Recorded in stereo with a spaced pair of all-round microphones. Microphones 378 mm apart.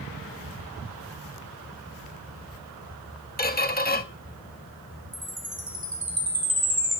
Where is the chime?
65° right (ahead or behind), 1.6 m.